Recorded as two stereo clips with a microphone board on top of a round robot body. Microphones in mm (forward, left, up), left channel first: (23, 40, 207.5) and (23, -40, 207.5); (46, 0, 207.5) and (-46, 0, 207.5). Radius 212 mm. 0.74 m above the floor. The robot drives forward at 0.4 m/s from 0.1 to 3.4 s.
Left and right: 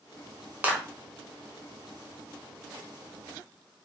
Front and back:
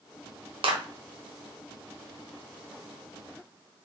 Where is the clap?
160° right, 2.5 m.